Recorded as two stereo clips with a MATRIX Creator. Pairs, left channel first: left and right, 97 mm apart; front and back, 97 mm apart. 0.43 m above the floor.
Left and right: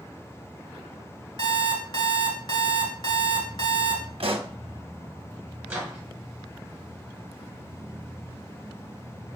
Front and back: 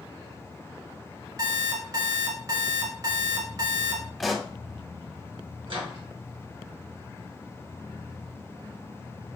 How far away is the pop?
About 0.6 m.